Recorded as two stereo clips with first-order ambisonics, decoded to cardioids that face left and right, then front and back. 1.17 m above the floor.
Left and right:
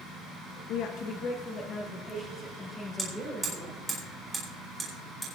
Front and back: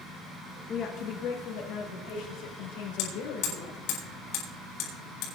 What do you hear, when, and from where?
0.7 s a woman speaking: 60° left, 1.0 m; by 3.8 s straight ahead, 4.5 m
3.0 s hammering: 10° right, 3.5 m